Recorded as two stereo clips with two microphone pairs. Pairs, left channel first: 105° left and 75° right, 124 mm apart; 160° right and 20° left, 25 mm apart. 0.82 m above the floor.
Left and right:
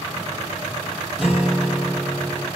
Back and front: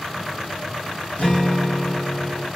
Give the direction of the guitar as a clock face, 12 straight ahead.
6 o'clock.